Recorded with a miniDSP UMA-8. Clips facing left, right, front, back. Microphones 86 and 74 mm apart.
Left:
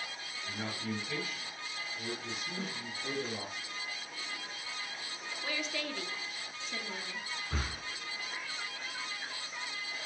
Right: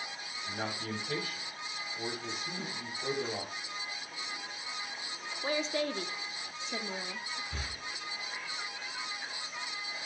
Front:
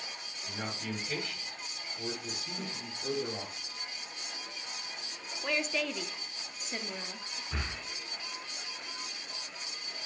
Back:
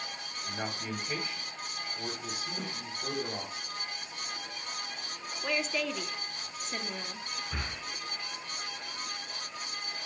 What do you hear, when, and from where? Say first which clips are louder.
0.5 s a man speaking: right 1 dB, back 1 dB; 120° right, 3 m
2.6 s a snare drum: left 1 dB, back 2 dB; 155° left, 2.5 m
5.4 s a woman speaking: right 7 dB, back 1 dB; 95° right, 0.7 m
7.5 s breathing: left 3 dB, front 3 dB; 95° left, 1.5 m